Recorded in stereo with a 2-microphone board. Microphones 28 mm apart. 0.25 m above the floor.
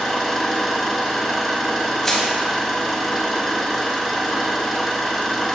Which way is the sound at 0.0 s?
5° left (ahead or behind).